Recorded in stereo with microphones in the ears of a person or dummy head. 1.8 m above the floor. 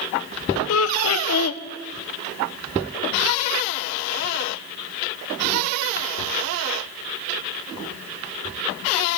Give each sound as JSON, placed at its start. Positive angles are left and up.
{"t": 0.7, "sound": "laughter", "side_deg": 90, "distance_m": 0.6}